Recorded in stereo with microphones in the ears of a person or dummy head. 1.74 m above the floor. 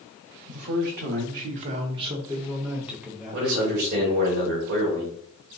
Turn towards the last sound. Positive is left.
turn(degrees=-45)  # may be behind; listen again after turning